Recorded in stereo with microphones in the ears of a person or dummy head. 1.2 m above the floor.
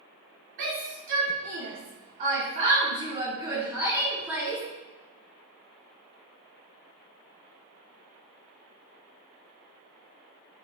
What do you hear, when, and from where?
0.6 s a shout: 65° right (ahead or behind), 2 m; by 4.6 s 5° right (ahead or behind), 2.5 m